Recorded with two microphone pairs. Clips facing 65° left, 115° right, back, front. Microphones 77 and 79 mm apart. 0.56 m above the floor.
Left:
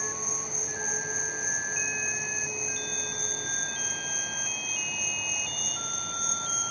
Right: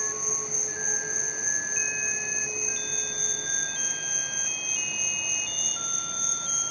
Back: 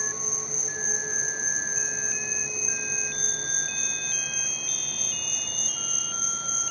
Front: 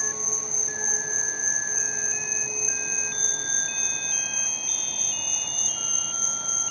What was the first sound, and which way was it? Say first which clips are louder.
An insect: right 1 dB, front 1 dB; 20° left.